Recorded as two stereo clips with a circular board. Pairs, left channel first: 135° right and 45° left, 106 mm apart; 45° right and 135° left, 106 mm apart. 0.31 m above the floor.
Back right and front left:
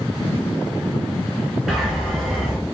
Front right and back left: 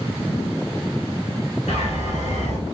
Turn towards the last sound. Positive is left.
turn(degrees=-45)